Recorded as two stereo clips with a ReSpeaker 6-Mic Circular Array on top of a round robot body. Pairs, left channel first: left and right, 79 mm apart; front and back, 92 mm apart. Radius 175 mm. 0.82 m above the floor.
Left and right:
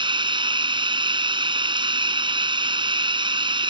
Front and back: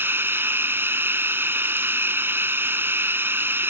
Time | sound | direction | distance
0.0 | running water | 110° right | ?